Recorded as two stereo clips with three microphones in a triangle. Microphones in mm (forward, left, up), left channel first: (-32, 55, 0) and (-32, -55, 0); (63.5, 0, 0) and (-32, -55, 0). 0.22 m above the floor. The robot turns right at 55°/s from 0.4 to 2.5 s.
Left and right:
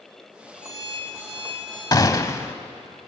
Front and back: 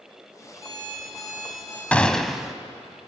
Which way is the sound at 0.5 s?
90° right.